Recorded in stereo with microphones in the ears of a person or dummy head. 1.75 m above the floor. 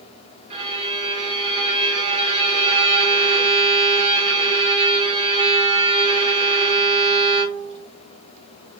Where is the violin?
30° right (ahead or behind), 1.7 m.